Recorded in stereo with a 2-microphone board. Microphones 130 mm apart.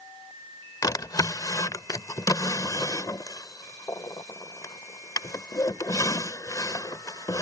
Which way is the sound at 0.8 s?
30° left (ahead or behind).